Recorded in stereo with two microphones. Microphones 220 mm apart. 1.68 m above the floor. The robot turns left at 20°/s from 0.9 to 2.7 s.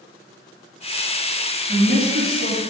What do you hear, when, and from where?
1.7 s a woman speaking: 60° right (ahead or behind), 3.5 m; by 2.6 s 80° right, 3.5 m